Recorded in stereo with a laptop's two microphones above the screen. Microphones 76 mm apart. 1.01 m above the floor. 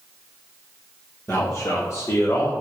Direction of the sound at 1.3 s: 35° left (ahead or behind).